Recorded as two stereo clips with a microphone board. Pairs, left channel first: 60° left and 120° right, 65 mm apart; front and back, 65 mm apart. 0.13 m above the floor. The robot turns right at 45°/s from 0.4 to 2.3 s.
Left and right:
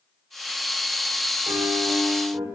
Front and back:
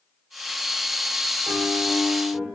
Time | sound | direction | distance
1.5 | a piano | 105° right | 4.5 m